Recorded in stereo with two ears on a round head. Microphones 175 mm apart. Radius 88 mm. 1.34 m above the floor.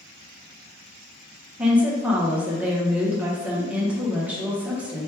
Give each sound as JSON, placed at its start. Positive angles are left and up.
{"t": 1.6, "sound": "a woman speaking", "side_deg": -5, "distance_m": 1.0}